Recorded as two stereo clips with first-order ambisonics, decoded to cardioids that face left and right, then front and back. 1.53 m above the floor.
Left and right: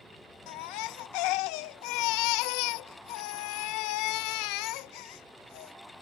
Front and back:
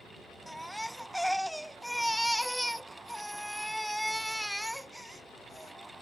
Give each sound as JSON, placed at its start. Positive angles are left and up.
{"t": 0.5, "sound": "a baby crying", "azimuth_deg": 90}